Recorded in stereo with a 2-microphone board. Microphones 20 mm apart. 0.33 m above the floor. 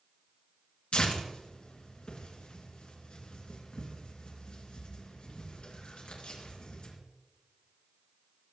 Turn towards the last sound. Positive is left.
turn(degrees=65)  # may be behind; listen again after turning